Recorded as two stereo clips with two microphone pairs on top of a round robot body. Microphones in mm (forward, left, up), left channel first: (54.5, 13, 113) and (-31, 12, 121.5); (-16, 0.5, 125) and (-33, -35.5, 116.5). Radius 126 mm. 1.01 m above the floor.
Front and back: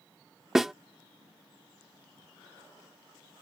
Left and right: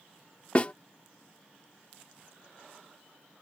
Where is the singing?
No singing in this recording.